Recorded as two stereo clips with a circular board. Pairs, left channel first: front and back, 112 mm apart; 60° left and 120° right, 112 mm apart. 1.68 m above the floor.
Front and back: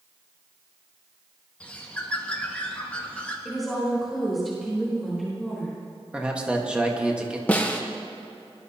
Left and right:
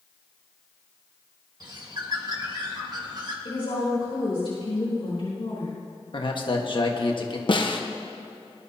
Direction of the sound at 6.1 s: 100° left.